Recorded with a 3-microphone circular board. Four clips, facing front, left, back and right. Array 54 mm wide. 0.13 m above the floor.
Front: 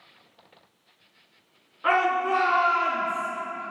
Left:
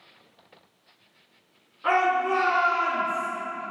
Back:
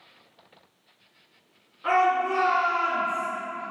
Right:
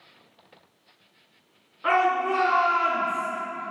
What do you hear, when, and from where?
1.8 s a shout: 15° right, 1.5 m; by 3.3 s straight ahead, 3 m